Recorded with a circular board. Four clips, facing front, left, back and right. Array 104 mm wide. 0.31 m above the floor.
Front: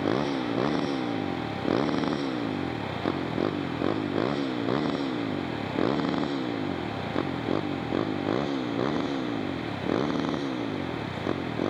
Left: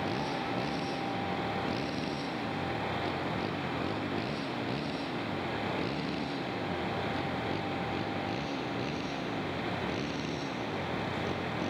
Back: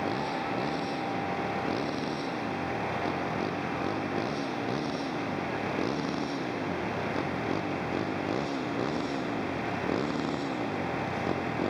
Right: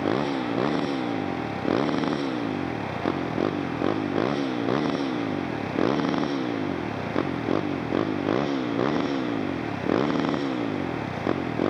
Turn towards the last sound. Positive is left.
turn(degrees=-80)